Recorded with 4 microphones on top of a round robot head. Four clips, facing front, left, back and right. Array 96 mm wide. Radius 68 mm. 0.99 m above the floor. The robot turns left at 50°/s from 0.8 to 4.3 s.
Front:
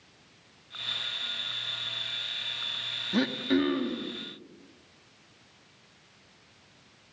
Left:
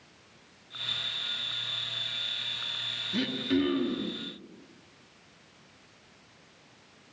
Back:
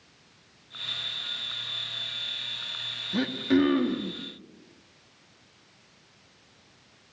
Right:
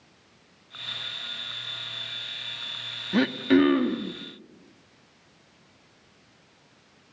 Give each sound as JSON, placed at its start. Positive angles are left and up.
{"t": 3.1, "sound": "throat clearing", "azimuth_deg": -80, "distance_m": 1.4}